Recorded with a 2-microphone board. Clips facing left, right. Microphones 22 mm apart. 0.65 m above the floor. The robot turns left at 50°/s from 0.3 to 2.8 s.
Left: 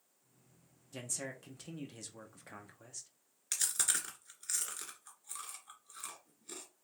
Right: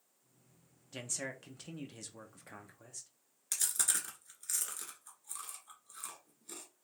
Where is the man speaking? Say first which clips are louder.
Right 1 dB; 120° right, 0.8 m; by 3.1 s 145° left, 0.8 m.